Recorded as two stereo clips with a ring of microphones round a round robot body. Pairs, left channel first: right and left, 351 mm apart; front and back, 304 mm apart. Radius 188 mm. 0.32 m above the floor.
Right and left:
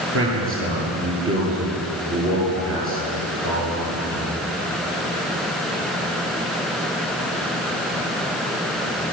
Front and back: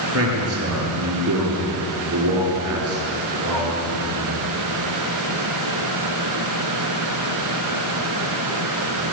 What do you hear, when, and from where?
0.1 s a man speaking: 145° left, 8 m